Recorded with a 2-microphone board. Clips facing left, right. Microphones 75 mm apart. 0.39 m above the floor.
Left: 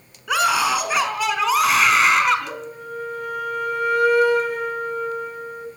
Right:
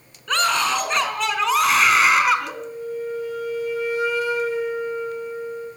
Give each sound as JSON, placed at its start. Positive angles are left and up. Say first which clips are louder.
{"t": 0.3, "sound": "a scream", "louder": "left 2 dB", "side_deg": 10, "distance_m": 4.5}
{"t": 2.5, "sound": "a flute", "louder": "right 2 dB", "side_deg": 60, "distance_m": 5.5}